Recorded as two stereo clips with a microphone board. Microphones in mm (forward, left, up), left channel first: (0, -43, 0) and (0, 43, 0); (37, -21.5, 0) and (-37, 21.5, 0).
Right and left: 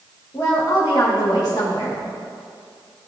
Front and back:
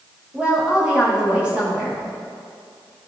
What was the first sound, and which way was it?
A woman speaking, 130° right.